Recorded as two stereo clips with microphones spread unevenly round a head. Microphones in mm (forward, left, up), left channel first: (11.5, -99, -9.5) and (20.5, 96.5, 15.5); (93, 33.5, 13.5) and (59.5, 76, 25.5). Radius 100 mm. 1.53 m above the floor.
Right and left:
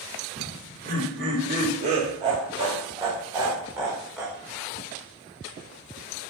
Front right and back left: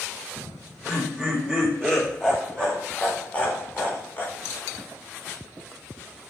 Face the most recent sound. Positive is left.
turn(degrees=-5)